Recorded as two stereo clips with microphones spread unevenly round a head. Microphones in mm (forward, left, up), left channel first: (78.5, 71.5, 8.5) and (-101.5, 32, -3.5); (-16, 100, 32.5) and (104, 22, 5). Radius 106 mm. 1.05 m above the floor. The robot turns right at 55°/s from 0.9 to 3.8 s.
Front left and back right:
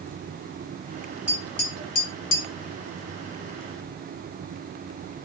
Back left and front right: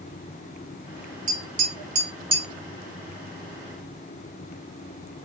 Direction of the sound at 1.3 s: 50° right.